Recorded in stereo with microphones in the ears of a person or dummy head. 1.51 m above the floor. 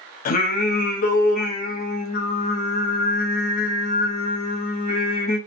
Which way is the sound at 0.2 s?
40° left (ahead or behind).